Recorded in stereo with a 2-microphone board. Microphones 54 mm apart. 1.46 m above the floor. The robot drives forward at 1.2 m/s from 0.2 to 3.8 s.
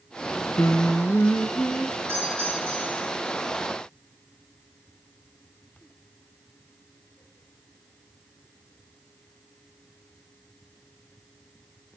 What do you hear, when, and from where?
0.6 s singing: 65° left (ahead or behind), 0.7 m; by 2.0 s 20° left (ahead or behind), 1.9 m
2.1 s a doorbell: 45° right (ahead or behind), 4 m; by 3.1 s 35° right (ahead or behind), 5 m